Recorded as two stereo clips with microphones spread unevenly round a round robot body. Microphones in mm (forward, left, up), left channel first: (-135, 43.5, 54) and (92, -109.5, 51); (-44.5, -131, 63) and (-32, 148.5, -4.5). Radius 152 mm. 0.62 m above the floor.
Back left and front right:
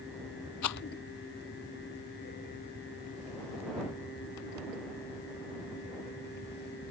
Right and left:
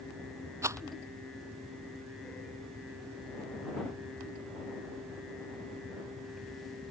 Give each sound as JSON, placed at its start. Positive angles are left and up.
{"t": 0.6, "sound": "a rattle", "azimuth_deg": 170}